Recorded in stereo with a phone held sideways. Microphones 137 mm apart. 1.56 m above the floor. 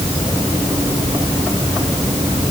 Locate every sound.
Only background noise.